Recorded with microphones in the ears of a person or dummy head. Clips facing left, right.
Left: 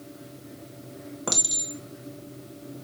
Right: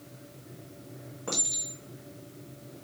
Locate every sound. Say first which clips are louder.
1.3 s a clink: left 3 dB; 75° left (ahead or behind), 1.0 m